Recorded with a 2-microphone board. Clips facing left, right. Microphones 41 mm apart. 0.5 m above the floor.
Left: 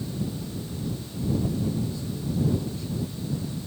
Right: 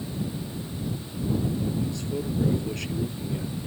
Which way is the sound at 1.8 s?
65° right (ahead or behind).